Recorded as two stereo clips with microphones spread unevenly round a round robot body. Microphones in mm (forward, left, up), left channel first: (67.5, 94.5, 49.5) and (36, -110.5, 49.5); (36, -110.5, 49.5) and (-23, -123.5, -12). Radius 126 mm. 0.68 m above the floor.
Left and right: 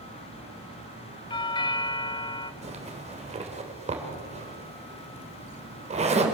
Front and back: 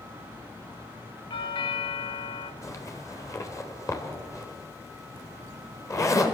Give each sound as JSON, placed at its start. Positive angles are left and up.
{"t": 1.3, "sound": "a doorbell", "azimuth_deg": 50, "distance_m": 1.3}
{"t": 2.6, "sound": "a zipper", "azimuth_deg": -40, "distance_m": 3.0}